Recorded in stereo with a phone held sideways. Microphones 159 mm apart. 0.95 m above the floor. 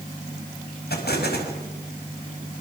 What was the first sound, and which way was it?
An explosion, 85° left.